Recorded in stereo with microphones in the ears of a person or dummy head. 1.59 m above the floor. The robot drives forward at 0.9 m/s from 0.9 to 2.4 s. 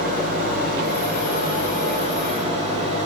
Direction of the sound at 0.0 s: 55° right (ahead or behind).